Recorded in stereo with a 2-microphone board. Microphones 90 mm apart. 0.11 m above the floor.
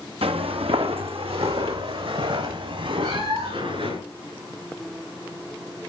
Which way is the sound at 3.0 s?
85° right.